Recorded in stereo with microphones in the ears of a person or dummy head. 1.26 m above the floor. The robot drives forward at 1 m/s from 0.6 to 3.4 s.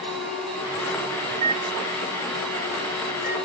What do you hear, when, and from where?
1.3 s a microwave: 35° right (ahead or behind), 0.5 m; by 3.4 s 5° right (ahead or behind), 2.5 m